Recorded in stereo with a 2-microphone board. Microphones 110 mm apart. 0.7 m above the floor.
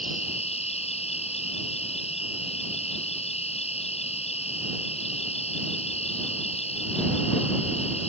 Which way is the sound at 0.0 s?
70° left (ahead or behind).